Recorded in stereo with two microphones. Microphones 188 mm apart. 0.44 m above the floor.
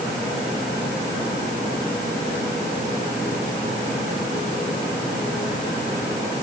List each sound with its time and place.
Only background noise.